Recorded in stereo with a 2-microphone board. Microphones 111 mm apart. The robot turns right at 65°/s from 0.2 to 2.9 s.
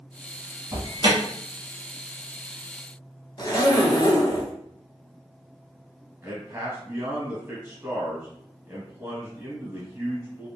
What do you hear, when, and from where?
0.7 s an alarm: 45° right (ahead or behind), 1.1 m; by 1.2 s 50° right (ahead or behind), 1.1 m
3.4 s a zipper: 40° left (ahead or behind), 0.7 m
6.2 s a man speaking: 20° right (ahead or behind), 1.2 m